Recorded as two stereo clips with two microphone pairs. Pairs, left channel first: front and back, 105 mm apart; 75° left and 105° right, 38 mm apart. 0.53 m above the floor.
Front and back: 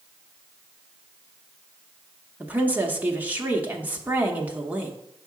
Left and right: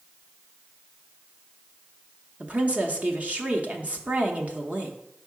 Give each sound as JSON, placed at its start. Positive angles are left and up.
{"t": 2.4, "sound": "a woman speaking", "azimuth_deg": -115, "distance_m": 0.9}